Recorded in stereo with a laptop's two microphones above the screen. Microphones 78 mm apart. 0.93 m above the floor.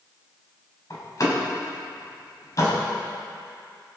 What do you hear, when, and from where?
0.9 s a door slam: 45° left (ahead or behind), 5 m